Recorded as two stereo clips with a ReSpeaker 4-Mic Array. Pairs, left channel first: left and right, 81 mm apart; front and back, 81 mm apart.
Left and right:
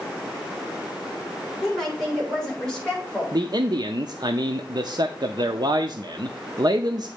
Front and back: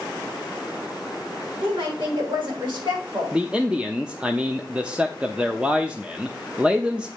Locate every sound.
1.6 s a woman speaking: 175° left, 6 m; by 3.4 s 170° left, 5 m
3.3 s a man speaking: 105° right, 0.6 m